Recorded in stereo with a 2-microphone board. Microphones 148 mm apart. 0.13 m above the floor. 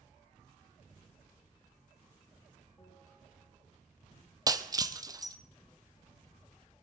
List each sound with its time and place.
2.8 s a bell: 25° left (ahead or behind), 5 m
4.5 s breaking glass: 25° right (ahead or behind), 0.5 m